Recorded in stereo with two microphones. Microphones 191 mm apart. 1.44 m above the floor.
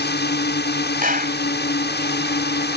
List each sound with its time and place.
0.0 s a drone: 65° left (ahead or behind)
1.0 s a clap: 50° right (ahead or behind)